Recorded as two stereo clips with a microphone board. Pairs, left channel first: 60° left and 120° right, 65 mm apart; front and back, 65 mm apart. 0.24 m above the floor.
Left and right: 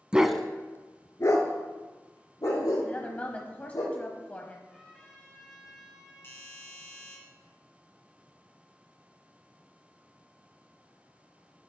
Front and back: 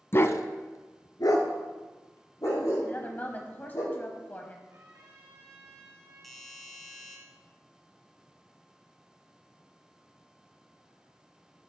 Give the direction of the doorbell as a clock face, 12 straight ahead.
9 o'clock.